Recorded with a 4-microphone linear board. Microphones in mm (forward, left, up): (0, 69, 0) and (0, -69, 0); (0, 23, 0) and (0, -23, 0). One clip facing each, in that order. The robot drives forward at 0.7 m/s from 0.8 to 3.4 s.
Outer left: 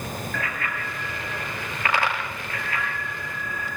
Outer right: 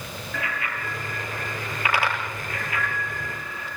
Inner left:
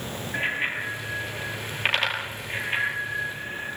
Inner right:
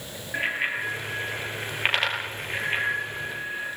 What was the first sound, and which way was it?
A bicycle bell, 15° right (ahead or behind).